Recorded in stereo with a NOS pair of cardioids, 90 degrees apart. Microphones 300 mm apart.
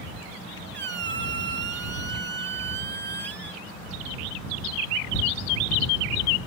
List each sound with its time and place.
0.7 s a squeak: 35° right